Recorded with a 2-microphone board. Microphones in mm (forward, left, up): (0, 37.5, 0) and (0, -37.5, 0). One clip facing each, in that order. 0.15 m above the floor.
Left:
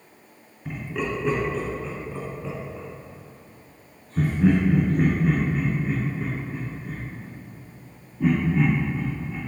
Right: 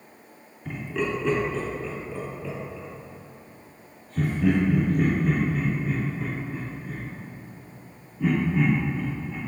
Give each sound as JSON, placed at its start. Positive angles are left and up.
{"t": 0.7, "sound": "laughter", "side_deg": 10, "distance_m": 1.8}